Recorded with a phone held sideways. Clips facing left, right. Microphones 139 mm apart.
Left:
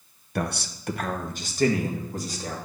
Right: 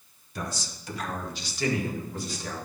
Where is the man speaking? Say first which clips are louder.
Left 7 dB; 65° left (ahead or behind), 0.7 m; by 2.6 s 40° left (ahead or behind), 2.5 m.